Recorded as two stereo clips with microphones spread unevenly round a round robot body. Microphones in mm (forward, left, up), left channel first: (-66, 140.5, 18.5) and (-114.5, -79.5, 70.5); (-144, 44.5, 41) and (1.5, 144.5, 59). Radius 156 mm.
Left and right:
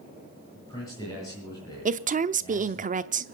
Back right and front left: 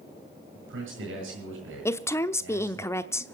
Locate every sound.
0.6 s a man speaking: straight ahead, 8.5 m
1.9 s a woman speaking: 125° right, 0.8 m